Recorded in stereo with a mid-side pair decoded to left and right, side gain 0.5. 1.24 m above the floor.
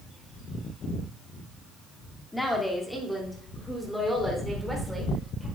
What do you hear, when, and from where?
2.3 s a woman speaking: 10° left, 2.5 m; by 5.5 s 10° right, 4 m